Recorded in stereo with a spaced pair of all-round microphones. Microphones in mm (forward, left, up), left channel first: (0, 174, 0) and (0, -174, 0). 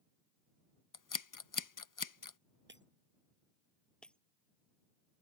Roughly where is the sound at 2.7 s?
Right.